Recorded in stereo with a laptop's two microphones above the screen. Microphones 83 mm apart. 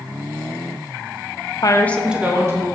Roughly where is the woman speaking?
Left.